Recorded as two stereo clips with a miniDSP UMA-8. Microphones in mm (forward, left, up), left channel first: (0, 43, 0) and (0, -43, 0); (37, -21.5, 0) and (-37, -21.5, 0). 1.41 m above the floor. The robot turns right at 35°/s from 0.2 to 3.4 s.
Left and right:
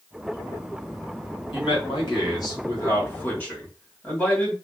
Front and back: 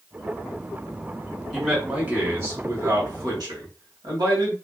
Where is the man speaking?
95° left, 1.5 m; by 4.5 s 165° left, 1.5 m.